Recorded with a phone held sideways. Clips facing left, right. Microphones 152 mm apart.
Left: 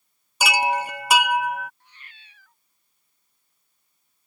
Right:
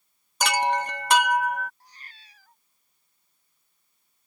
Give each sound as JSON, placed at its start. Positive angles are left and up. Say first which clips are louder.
{"t": 0.4, "sound": "a chime", "louder": "left 1 dB", "side_deg": 10}
{"t": 1.8, "sound": "a cat meowing", "louder": "right 1 dB", "side_deg": -35}